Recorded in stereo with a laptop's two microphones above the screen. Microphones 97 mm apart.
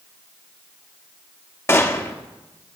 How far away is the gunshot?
About 0.8 m.